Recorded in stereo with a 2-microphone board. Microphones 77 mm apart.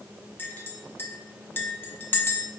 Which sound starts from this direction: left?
A clink, at 0.4 s.